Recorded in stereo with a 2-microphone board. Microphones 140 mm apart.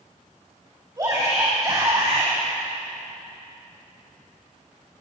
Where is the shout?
25° right (ahead or behind), 3.5 m.